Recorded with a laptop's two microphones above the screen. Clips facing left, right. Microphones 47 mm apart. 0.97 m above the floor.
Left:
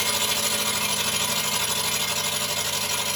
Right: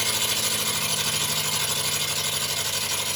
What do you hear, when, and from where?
0.0 s an engine running: 30° left (ahead or behind), 2.5 m